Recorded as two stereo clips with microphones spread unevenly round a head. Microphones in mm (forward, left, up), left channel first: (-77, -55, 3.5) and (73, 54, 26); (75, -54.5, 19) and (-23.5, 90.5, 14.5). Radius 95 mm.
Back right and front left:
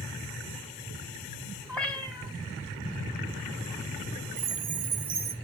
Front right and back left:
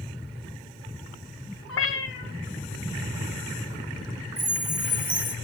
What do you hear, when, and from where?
1.7 s a cat meowing: 55° right, 3 m
4.4 s a chime: 20° left, 2.0 m